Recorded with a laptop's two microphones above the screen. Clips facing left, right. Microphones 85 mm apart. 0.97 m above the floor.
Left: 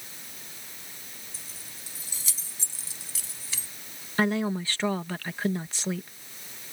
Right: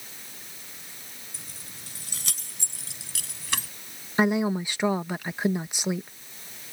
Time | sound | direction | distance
1.3 | keys jangling | 70° right (ahead or behind) | ?
4.2 | a woman speaking | 15° right (ahead or behind) | ?